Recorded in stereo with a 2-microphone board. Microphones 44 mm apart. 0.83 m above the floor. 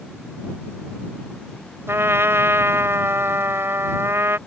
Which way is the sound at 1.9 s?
85° right.